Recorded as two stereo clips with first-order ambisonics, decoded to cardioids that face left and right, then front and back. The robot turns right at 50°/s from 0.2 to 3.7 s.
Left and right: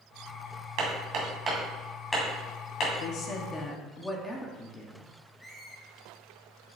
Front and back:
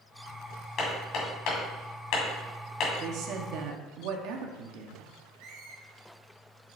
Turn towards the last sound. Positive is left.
turn(degrees=180)